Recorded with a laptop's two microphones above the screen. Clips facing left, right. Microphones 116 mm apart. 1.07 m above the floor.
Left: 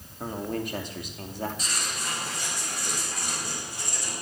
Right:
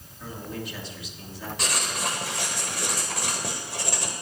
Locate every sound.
0.2 s a man speaking: 45° left (ahead or behind), 2.5 m
1.6 s writing: 80° right, 2.5 m